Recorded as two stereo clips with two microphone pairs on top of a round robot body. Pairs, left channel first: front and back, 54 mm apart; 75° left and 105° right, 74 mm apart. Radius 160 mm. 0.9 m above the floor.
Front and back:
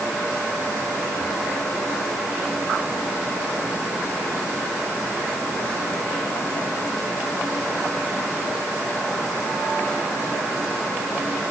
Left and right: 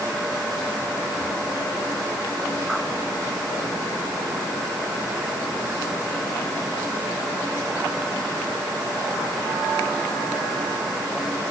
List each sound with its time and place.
Only background noise.